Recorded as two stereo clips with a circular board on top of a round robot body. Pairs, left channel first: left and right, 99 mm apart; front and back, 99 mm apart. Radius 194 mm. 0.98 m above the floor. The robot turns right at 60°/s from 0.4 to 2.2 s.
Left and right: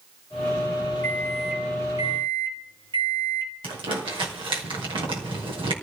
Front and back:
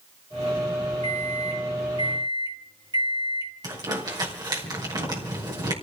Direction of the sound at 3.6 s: 130° right.